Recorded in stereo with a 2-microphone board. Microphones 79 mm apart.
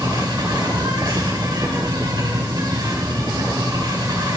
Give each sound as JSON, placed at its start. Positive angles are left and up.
{"t": 0.0, "sound": "an insect", "side_deg": -65, "distance_m": 5.0}